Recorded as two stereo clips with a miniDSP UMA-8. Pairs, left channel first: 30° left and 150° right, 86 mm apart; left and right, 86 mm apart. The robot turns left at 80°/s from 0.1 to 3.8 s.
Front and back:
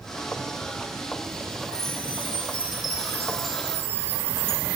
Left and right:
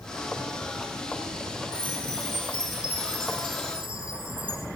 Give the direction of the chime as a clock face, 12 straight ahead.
9 o'clock.